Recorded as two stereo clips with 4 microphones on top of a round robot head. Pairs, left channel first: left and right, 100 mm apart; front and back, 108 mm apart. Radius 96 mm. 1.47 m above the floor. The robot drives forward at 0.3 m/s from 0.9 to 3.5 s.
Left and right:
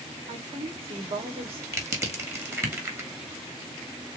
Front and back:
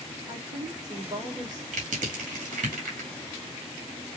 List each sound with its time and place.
0.3 s a woman speaking: 120° right, 2 m; by 1.6 s 125° right, 2 m
1.7 s crushing: 155° right, 1.9 m; by 3.1 s 160° right, 2.5 m